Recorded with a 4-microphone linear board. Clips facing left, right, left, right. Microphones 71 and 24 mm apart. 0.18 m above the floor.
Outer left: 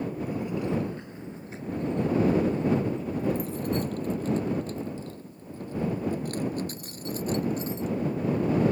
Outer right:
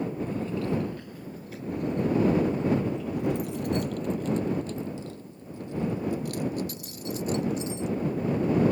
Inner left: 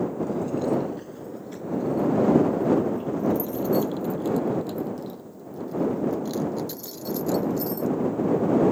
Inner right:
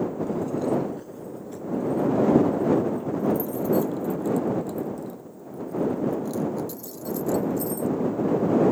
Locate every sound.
0.2 s keys jangling: 10° left (ahead or behind); by 7.9 s 40° left (ahead or behind)